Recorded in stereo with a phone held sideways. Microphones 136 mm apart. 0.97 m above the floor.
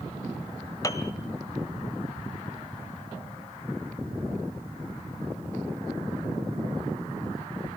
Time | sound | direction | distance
0.8 | a piano | 25° left (ahead or behind) | 1.8 m